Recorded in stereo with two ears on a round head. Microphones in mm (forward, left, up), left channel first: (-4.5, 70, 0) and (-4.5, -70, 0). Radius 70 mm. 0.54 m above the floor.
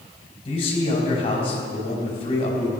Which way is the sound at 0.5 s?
35° left (ahead or behind).